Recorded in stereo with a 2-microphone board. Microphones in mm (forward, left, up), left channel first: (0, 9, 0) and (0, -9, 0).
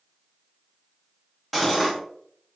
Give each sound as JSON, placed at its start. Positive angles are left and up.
{"t": 1.5, "sound": "cutlery clinking", "side_deg": -5, "distance_m": 0.9}